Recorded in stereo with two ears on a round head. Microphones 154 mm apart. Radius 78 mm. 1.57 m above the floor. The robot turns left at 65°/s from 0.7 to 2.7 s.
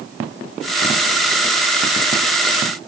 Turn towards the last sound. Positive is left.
No sound to turn to.